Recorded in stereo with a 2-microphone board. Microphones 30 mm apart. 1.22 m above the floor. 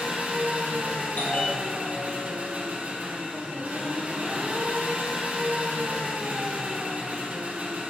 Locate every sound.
0.0 s an engine running: 60° right (ahead or behind), 1.6 m
1.2 s a bell: 80° left, 1.9 m